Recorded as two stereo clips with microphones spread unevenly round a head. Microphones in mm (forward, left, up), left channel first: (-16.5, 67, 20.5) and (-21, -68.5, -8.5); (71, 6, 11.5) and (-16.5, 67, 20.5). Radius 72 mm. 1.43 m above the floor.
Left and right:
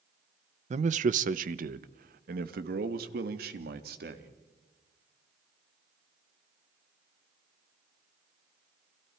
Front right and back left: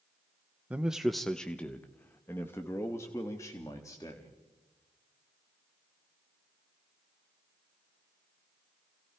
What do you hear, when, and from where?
0.7 s a man speaking: 135° right, 0.8 m; by 4.3 s 105° right, 2.5 m